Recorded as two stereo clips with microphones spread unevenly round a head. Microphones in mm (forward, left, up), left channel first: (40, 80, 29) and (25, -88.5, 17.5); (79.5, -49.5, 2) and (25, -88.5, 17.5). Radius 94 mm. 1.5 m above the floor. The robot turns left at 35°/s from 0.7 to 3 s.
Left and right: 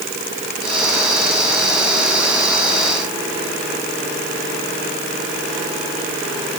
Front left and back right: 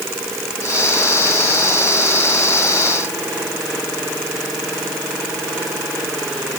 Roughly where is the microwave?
No microwave in this recording.